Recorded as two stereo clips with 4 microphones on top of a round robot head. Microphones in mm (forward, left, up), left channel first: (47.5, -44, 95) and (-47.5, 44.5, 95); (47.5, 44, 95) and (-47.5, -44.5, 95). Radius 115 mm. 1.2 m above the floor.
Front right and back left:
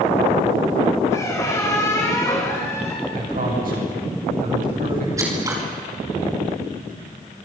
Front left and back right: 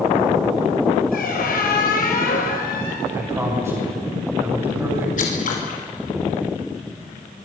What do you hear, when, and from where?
1.1 s a squeak: 25° left, 4.5 m
3.1 s a man speaking: 150° left, 9.5 m
5.2 s scissors: 70° left, 5 m